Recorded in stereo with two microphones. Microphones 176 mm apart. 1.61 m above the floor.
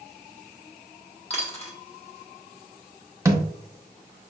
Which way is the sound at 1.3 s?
40° left (ahead or behind).